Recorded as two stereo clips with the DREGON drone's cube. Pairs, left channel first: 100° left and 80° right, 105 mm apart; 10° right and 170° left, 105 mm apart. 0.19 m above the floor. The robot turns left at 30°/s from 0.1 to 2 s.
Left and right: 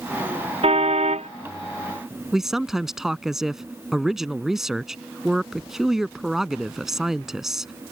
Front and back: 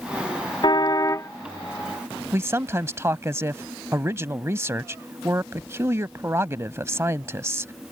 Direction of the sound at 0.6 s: 55° right.